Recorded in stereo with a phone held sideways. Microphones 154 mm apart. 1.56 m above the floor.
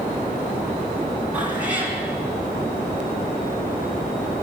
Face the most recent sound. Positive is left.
turn(degrees=-10)  # may be behind; listen again after turning